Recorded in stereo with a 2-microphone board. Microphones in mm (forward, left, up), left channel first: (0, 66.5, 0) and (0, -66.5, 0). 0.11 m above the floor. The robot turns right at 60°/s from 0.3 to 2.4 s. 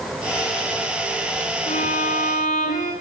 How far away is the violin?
About 9 m.